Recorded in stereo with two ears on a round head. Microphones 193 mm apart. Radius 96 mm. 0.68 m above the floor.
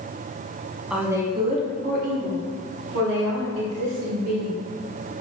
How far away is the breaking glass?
I don't hear breaking glass.